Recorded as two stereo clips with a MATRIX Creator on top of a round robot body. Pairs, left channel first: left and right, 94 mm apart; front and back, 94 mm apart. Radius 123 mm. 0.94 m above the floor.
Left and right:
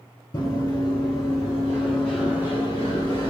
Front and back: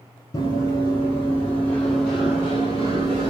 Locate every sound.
0.3 s running footsteps: 50° left, 1.3 m; by 3.3 s 135° right, 1.1 m